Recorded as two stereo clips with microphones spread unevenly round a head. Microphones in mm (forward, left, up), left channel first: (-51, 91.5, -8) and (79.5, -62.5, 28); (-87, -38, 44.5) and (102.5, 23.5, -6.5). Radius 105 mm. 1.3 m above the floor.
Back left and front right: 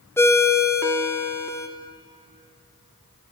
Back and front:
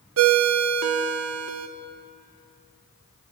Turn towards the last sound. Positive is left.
turn(degrees=45)